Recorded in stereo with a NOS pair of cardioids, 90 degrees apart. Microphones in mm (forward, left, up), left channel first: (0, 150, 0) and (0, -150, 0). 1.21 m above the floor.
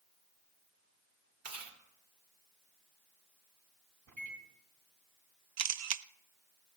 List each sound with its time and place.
1.4 s chewing: 50° right, 3.5 m
4.1 s a microwave: 65° right, 3.5 m
5.6 s a camera shutter: 55° right, 0.6 m